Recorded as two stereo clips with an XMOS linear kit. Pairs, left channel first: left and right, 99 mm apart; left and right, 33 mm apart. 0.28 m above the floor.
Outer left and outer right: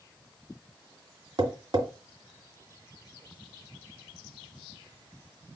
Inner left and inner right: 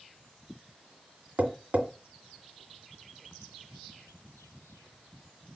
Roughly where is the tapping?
Right.